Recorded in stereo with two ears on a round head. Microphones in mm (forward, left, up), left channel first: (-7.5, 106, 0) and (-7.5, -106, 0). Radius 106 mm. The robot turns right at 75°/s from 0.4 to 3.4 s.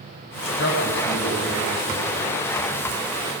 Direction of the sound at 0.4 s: 65° left (ahead or behind).